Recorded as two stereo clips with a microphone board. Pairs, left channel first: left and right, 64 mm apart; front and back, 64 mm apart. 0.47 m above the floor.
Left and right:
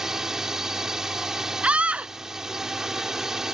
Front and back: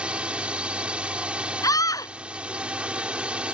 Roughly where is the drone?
Behind right.